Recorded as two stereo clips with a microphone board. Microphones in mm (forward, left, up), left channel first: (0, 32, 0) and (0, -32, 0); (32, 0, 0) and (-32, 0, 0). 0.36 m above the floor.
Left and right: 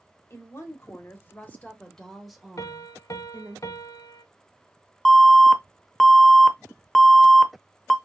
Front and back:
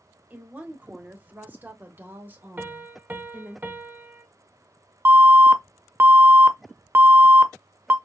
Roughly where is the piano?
Behind left.